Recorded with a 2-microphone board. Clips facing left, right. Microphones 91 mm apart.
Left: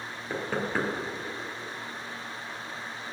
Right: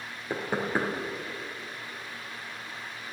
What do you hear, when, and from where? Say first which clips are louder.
0.3 s knocking: right 1 dB; 15° right (ahead or behind), 2.5 m